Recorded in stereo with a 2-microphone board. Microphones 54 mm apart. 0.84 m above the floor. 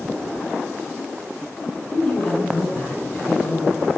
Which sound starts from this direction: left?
A man speaking, at 1.9 s.